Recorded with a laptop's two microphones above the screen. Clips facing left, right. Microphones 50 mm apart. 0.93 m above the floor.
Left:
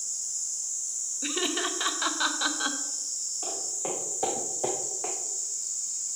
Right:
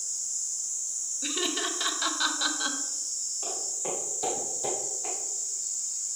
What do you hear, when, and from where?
1.2 s laughter: 10° left (ahead or behind), 0.6 m
3.4 s footsteps: 15° left (ahead or behind), 2.5 m; by 5.2 s 60° left (ahead or behind), 1.8 m